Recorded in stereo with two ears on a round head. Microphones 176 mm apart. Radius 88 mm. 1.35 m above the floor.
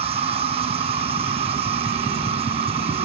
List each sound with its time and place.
0.0 s an insect: 30° right (ahead or behind)